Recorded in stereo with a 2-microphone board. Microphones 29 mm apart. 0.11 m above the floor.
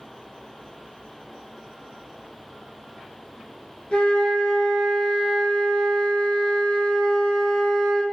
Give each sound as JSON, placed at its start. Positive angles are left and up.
{"t": 3.9, "sound": "a flute", "side_deg": 40, "distance_m": 0.5}